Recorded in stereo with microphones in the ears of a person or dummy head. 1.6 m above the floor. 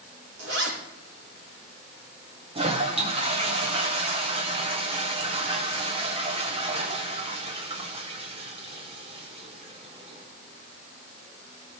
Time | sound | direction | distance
0.4 | a zipper | 70° right (ahead or behind) | 5 m
2.5 | a toilet flushing | 35° right (ahead or behind) | 1.4 m